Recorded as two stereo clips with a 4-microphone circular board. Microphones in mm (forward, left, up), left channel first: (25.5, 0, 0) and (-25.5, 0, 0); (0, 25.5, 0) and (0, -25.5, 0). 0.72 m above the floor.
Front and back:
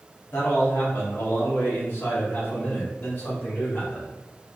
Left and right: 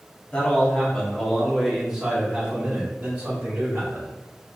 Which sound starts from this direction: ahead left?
A man speaking, at 0.3 s.